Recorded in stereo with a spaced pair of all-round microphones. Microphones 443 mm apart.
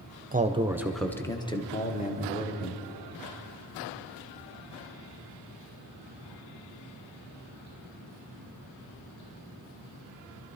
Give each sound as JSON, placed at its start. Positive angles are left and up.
{"t": 0.3, "sound": "a man speaking", "side_deg": -20, "distance_m": 0.8}